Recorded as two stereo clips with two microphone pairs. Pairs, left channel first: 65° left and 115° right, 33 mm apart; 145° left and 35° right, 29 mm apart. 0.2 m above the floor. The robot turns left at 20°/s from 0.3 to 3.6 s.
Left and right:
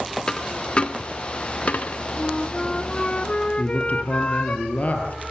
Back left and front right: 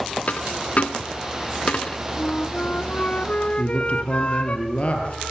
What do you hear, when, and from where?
0.3 s a dropped coin: 130° left, 0.7 m; by 2.0 s 95° left, 0.7 m
2.2 s a flute: 140° left, 0.7 m; by 4.6 s 110° left, 0.7 m
3.6 s a man speaking: 105° left, 4.5 m